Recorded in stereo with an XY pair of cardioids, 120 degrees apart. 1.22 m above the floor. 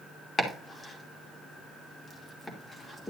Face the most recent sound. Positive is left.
turn(degrees=20)